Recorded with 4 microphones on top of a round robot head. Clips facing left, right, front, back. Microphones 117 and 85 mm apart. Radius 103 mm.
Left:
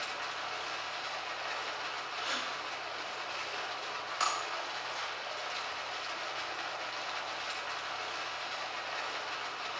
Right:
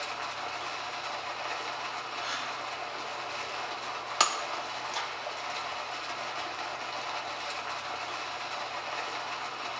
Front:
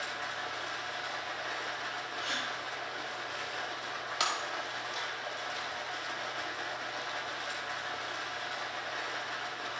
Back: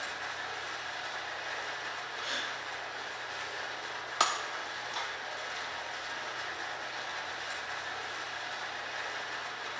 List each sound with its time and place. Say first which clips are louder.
0.0 s running water: right 3 dB, front 1 dB; 45° right, 2.5 m
2.2 s a gasp: even, front 2 dB; 15° left, 7 m
4.2 s breaking glass: right 5 dB, back 4 dB; 115° right, 0.7 m